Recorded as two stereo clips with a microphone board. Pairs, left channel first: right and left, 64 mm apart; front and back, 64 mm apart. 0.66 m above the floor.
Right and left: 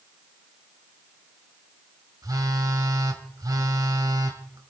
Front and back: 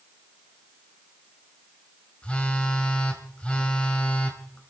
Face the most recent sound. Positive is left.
turn(degrees=75)